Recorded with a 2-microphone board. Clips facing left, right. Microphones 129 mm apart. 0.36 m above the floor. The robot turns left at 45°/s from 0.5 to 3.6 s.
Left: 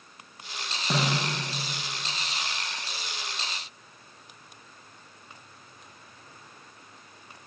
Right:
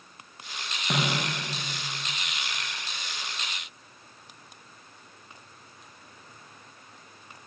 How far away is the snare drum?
About 8 m.